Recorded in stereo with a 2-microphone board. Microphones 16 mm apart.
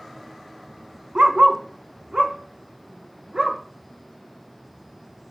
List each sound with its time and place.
1.1 s a dog barking: 75° right (ahead or behind), 1.2 m; by 3.6 s 60° right (ahead or behind), 3 m